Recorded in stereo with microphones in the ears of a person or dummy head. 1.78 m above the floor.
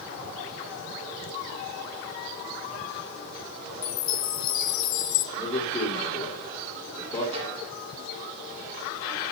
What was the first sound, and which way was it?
A chime, 45° left (ahead or behind).